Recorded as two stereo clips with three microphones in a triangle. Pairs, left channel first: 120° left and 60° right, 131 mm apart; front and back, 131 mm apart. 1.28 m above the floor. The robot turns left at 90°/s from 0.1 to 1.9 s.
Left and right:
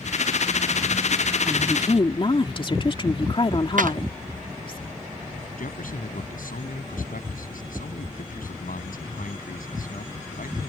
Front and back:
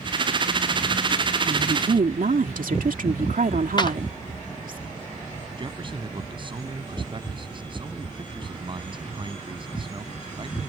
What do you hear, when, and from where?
1.5 s a woman speaking: 150° right; by 4.8 s 170° left
3.8 s a clap: 55° right
5.6 s a man speaking: 125° left